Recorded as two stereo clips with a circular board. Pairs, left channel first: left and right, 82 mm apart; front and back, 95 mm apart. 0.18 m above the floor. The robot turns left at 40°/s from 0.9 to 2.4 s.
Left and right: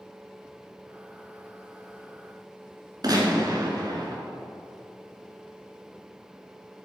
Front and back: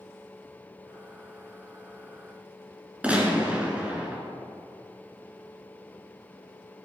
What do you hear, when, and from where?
3.0 s a gunshot: 105° right, 1.8 m